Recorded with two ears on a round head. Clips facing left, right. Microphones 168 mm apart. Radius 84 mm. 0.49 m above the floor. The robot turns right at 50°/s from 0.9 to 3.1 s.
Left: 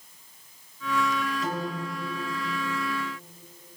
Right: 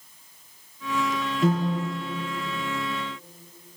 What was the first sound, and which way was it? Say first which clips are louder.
A piano: right 7 dB; 50° right (ahead or behind).